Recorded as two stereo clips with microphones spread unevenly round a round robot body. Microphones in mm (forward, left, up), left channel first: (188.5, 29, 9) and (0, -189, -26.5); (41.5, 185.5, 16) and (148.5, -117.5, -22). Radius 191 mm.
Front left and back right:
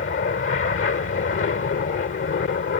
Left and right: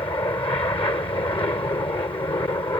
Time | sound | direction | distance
0.0 | an aircraft | 40° left | ?